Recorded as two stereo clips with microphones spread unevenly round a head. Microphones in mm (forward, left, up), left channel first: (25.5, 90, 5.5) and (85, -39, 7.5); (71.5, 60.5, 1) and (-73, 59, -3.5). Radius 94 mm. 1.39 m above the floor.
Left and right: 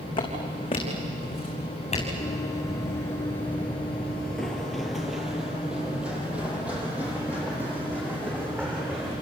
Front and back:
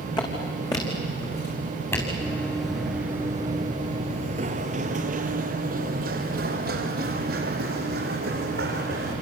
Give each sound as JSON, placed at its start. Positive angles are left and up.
{"t": 0.2, "sound": "footsteps", "azimuth_deg": 60, "distance_m": 6.5}
{"t": 2.2, "sound": "running footsteps", "azimuth_deg": 65, "distance_m": 1.6}